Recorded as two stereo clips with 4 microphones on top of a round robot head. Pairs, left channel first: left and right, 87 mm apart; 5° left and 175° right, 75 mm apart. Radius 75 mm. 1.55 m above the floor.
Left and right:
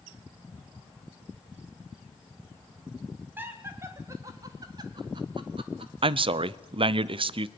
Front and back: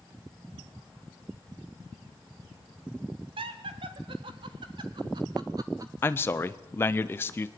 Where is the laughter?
160° right, 2.0 m; by 6.2 s 115° right, 1.5 m.